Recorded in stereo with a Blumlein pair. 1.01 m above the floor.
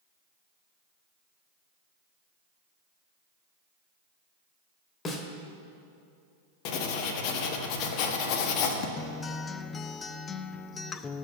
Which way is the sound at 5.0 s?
20° left.